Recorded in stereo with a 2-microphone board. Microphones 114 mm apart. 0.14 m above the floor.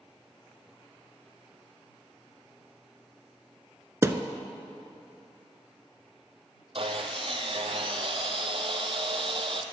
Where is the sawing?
55° right (ahead or behind), 0.7 m.